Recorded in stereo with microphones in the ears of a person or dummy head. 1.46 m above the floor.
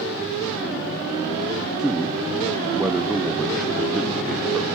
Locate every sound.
1.8 s a man speaking: centre (ahead or behind), 0.7 m